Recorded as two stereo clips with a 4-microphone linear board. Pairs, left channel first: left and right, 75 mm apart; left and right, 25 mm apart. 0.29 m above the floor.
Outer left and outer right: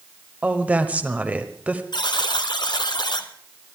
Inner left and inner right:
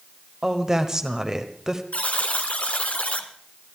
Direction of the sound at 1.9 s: 65° left (ahead or behind).